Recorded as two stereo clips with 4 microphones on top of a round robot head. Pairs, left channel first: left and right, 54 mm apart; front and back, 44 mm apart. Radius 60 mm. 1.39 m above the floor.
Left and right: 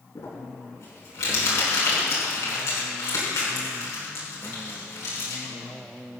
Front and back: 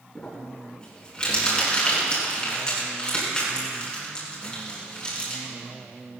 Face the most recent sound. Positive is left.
turn(degrees=65)